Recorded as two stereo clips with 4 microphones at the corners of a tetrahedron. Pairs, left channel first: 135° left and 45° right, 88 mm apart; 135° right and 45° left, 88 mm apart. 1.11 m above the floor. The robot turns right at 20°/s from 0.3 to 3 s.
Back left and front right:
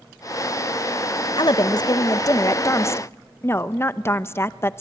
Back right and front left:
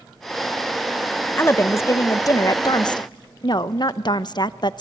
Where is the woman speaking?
160° left, 0.8 m; by 4.8 s 165° right, 0.8 m.